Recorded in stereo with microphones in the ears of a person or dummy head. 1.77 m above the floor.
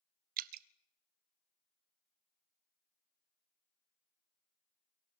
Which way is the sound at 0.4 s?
55° right (ahead or behind).